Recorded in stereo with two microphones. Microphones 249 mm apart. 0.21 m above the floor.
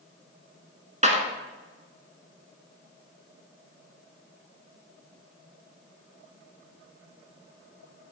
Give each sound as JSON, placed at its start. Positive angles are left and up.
{"t": 1.0, "sound": "a clap", "side_deg": -30, "distance_m": 1.6}